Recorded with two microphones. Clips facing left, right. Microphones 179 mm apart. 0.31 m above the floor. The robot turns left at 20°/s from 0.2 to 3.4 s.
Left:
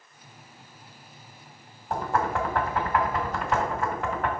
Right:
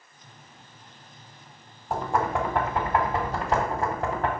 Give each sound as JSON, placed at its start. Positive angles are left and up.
{"t": 1.9, "sound": "knocking", "side_deg": -10, "distance_m": 1.4}